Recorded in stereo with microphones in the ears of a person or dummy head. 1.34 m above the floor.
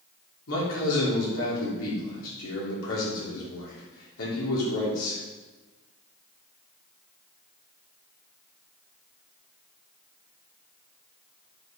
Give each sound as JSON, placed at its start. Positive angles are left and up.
{"t": 0.5, "sound": "a man speaking", "side_deg": 85, "distance_m": 3.5}